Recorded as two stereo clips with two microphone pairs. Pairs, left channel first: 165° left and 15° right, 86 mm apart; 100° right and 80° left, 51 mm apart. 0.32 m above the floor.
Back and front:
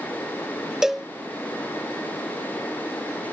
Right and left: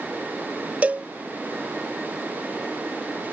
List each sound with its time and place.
0.8 s a cowbell: 70° left